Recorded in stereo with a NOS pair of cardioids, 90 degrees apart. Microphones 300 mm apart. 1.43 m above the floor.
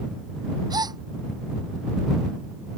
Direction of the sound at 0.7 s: 15° right.